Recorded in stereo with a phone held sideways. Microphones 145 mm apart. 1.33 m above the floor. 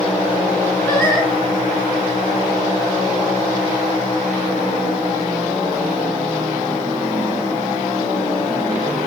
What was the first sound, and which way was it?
Singing, 15° left (ahead or behind).